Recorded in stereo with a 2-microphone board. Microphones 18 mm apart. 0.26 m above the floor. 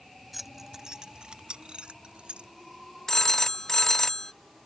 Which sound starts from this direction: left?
A phone ringing, at 3.1 s.